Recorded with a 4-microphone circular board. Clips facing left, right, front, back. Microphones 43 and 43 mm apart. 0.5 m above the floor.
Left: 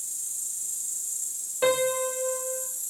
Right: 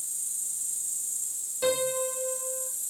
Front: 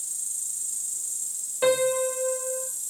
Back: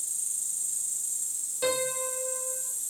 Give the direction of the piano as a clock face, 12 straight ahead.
10 o'clock.